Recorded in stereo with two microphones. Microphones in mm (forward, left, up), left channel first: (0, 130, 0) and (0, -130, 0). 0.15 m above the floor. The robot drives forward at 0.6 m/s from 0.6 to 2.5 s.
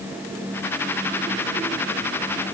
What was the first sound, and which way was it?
Only background noise.